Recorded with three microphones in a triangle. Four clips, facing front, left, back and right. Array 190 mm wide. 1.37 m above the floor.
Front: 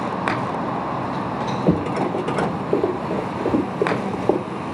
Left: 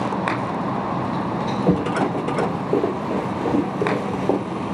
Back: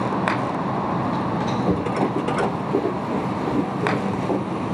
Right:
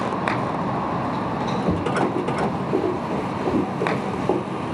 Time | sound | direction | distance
1.7 | running footsteps | 30° left | 8 m